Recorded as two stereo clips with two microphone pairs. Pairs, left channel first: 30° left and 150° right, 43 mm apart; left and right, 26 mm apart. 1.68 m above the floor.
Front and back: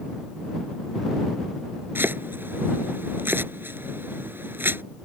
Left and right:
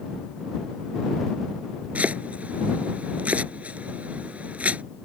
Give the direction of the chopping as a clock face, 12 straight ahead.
4 o'clock.